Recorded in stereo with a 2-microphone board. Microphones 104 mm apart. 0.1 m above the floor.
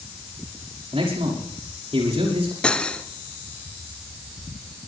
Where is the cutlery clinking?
10° left (ahead or behind), 0.9 m.